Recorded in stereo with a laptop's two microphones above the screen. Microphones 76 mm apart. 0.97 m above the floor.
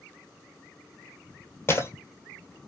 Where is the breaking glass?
30° left (ahead or behind), 1.1 m.